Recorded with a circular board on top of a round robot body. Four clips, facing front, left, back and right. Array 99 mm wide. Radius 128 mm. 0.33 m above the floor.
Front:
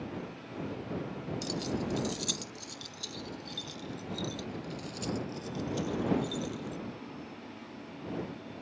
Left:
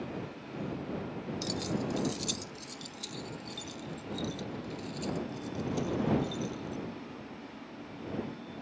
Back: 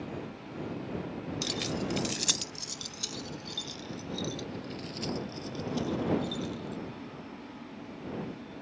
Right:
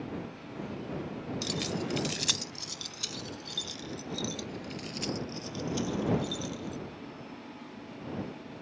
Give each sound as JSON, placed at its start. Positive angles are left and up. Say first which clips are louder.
{"t": 1.4, "sound": "keys jangling", "louder": "left 1 dB, even", "azimuth_deg": -160}